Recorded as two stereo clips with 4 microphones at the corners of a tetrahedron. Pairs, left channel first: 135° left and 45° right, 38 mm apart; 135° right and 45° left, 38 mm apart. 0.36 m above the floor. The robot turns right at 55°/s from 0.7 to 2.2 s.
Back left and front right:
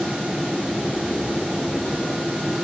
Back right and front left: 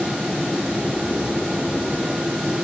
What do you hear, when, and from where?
Only background noise.